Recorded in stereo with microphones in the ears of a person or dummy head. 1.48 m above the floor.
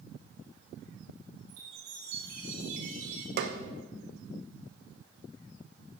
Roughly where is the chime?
Right.